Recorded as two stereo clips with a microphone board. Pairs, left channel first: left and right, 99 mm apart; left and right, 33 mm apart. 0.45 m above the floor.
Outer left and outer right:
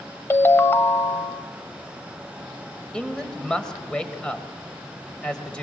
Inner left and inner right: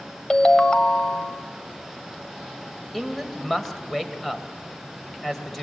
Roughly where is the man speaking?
Centre.